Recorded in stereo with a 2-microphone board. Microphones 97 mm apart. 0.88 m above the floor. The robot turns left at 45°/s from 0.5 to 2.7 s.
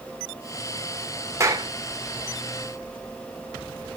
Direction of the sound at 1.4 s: 30° right (ahead or behind).